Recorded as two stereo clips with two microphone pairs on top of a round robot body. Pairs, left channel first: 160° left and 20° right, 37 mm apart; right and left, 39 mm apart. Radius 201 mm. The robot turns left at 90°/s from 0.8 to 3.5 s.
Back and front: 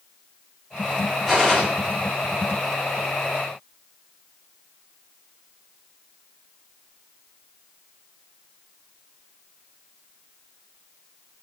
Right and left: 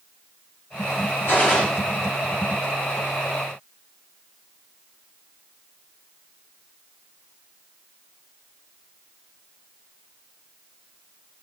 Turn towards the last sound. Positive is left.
turn(degrees=40)